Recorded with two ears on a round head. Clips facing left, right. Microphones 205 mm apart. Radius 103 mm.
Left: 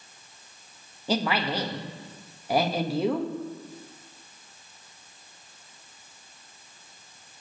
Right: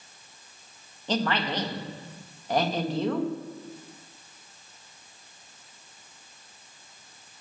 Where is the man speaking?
10° left (ahead or behind), 1.3 m.